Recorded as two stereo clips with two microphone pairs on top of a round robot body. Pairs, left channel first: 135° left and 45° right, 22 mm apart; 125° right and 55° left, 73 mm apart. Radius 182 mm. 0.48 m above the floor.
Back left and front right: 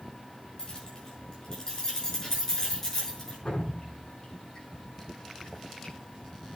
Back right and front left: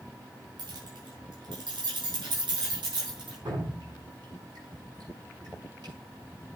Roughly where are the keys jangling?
Left.